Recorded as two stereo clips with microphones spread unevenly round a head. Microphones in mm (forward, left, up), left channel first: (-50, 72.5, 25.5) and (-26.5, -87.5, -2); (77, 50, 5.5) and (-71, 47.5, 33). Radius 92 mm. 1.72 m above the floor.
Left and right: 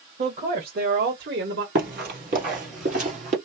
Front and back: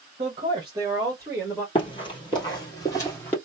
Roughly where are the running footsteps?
Ahead right.